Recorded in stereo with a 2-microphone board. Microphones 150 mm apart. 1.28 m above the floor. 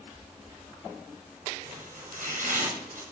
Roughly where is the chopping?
Right.